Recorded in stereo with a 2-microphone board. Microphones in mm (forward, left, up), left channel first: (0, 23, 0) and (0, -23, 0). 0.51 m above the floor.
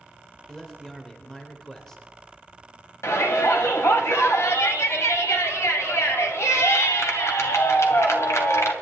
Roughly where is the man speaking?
Centre.